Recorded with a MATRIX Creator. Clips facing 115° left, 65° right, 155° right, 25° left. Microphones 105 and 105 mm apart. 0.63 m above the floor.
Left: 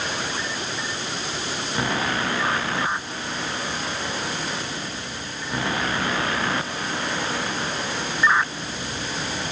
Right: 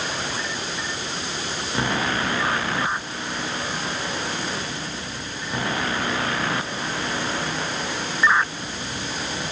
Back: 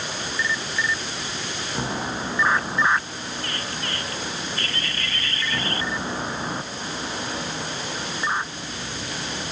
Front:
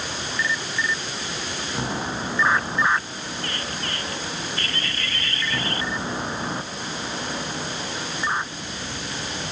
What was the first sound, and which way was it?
Only background noise.